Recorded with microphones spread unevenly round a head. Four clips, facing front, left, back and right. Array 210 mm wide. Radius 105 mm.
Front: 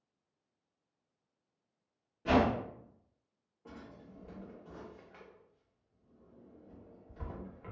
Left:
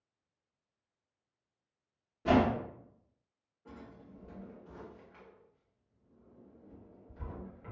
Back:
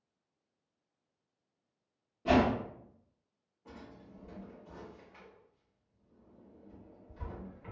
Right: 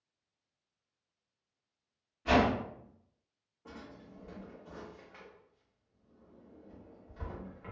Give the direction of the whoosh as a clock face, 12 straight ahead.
9 o'clock.